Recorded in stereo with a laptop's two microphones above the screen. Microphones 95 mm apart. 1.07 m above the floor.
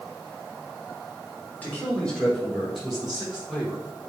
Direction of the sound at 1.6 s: 20° left (ahead or behind).